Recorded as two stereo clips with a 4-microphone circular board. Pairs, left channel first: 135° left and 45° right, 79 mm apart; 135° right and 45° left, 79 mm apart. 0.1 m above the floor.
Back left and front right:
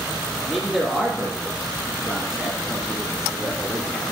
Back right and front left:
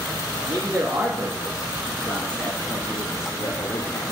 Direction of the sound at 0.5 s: 25° left.